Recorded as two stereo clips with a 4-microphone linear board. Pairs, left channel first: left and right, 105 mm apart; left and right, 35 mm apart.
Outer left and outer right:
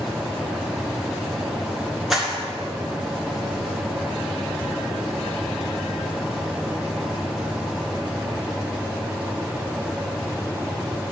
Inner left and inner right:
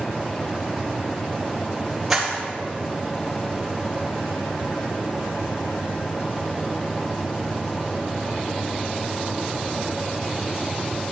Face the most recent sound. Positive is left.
turn(degrees=0)  # may be behind; listen again after turning